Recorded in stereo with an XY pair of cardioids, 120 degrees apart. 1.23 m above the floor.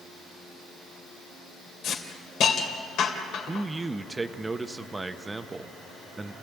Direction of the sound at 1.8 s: 65° left.